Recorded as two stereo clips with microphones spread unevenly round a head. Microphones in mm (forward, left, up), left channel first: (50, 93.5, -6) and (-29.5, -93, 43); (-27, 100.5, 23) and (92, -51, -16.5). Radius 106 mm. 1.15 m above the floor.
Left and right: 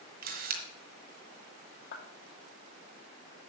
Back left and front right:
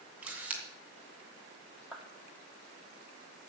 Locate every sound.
0.2 s a camera shutter: 140° right, 1.7 m
1.9 s a clap: 35° left, 2.5 m